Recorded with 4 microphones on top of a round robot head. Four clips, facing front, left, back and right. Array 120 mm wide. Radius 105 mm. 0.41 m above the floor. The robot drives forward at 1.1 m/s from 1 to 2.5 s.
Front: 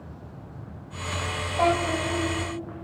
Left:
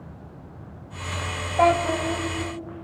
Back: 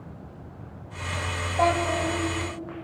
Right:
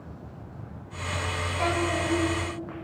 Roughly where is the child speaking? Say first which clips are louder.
Left 8 dB, even; left.